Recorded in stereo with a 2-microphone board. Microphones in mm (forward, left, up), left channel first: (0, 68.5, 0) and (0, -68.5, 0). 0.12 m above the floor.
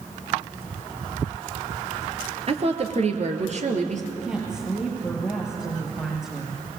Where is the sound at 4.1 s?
5° right (ahead or behind), 9 m.